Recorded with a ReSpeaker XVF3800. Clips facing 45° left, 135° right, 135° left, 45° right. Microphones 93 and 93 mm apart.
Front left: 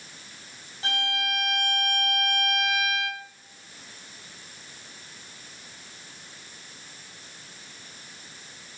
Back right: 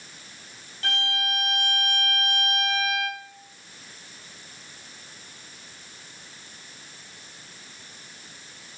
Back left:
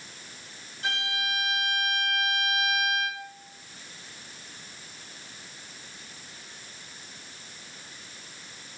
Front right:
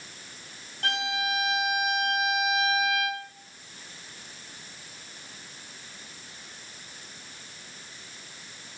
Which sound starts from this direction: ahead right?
A violin, at 0.8 s.